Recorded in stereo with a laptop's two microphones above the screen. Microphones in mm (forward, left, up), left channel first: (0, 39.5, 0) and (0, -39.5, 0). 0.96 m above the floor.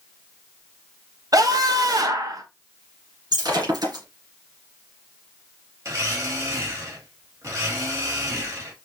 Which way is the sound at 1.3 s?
50° right (ahead or behind).